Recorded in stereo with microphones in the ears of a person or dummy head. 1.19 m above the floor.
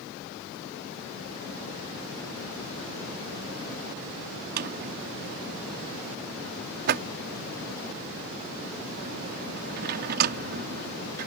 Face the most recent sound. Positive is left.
turn(degrees=-45)  # may be behind; listen again after turning